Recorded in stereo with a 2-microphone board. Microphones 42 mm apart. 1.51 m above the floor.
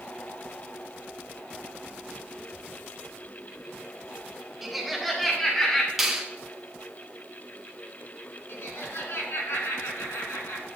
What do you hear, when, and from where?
4.6 s laughter: 10° right (ahead or behind), 0.9 m; by 5.9 s 15° left (ahead or behind), 1.7 m
6.0 s a finger snap: 5° right (ahead or behind), 1.4 m
8.5 s laughter: 80° left, 3 m